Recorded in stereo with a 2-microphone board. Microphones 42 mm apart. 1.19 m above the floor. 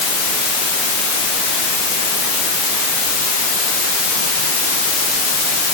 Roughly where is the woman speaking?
No woman speaking in this recording.